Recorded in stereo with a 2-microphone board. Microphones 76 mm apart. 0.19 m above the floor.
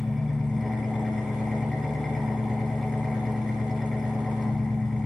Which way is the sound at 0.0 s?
5° left (ahead or behind).